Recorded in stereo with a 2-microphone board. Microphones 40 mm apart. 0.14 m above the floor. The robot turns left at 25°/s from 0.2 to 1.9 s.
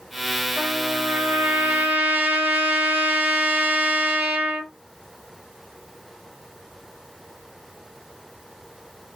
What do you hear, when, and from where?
0.6 s a trumpet: 75° right, 1.6 m; by 4.7 s 110° right, 1.6 m